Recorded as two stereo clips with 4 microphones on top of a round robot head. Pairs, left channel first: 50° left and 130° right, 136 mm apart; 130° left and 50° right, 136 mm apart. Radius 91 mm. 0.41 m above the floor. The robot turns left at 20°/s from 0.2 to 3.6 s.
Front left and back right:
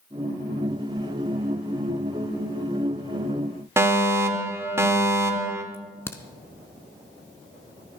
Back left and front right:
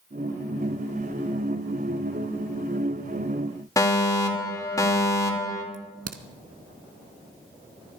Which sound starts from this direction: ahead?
A crack, at 5.7 s.